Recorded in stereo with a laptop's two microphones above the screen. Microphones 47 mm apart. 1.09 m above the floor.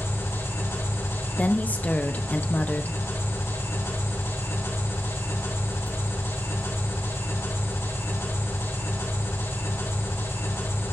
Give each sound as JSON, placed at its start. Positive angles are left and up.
{"t": 0.0, "sound": "an engine running", "side_deg": 85, "distance_m": 6.5}
{"t": 1.4, "sound": "a woman speaking", "side_deg": 35, "distance_m": 0.8}